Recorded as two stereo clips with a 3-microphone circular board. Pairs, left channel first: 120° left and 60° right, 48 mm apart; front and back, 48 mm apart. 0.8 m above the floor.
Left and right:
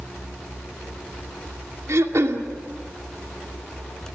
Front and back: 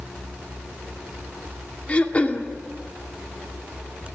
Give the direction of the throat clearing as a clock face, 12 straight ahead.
2 o'clock.